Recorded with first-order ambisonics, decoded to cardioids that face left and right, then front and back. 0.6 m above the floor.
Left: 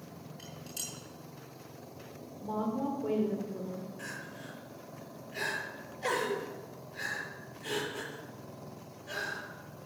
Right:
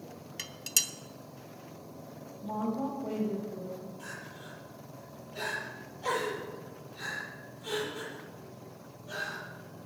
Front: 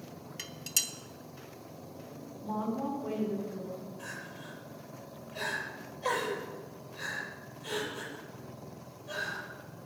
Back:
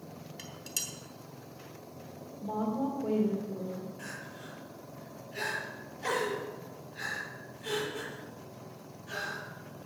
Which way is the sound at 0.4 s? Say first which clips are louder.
Right 12 dB, front 5 dB; 70° right.